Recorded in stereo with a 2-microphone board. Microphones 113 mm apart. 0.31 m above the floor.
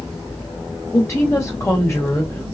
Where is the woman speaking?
25° left (ahead or behind), 1.6 m.